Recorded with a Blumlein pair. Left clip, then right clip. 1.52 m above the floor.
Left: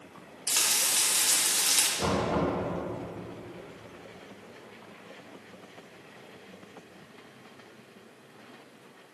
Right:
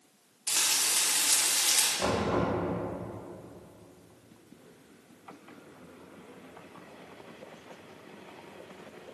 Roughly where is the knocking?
Ahead.